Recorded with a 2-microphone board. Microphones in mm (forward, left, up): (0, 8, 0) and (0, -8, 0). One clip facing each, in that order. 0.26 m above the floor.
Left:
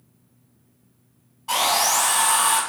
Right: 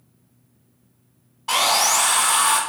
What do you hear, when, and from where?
1.5 s sawing: 30° right (ahead or behind), 0.5 m